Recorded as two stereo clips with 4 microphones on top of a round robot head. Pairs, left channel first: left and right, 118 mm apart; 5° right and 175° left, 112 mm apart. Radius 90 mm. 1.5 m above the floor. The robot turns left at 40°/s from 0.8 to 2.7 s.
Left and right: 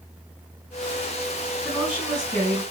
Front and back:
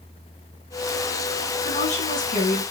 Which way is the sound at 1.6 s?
10° left.